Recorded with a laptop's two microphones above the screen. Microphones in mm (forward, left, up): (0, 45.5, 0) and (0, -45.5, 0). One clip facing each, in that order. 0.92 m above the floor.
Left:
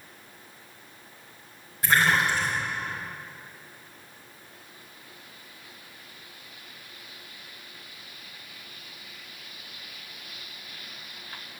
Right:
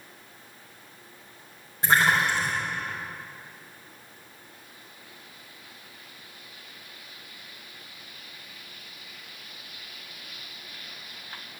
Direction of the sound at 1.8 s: 25° right (ahead or behind).